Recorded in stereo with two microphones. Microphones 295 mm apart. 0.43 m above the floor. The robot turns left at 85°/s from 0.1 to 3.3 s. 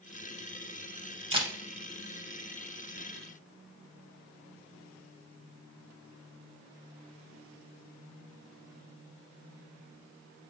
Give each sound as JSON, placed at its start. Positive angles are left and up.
{"t": 1.3, "sound": "a camera shutter", "side_deg": -20, "distance_m": 0.5}